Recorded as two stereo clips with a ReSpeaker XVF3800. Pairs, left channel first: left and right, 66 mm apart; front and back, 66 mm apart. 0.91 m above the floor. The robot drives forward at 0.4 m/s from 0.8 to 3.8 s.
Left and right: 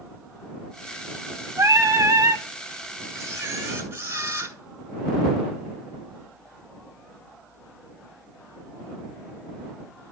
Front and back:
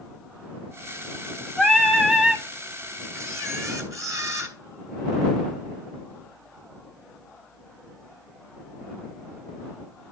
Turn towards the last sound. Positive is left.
turn(degrees=-140)